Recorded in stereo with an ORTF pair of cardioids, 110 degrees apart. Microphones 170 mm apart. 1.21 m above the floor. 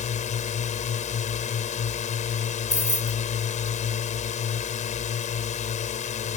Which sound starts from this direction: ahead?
Keys jangling, at 2.7 s.